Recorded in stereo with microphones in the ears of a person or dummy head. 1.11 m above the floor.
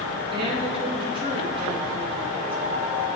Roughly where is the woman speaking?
Right.